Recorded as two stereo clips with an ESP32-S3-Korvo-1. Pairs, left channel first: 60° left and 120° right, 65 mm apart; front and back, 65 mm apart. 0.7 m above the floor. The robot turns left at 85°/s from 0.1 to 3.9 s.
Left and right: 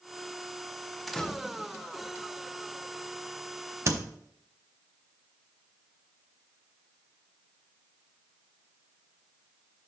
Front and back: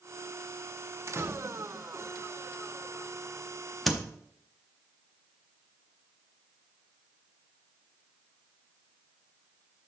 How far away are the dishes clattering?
No dishes clattering in this recording.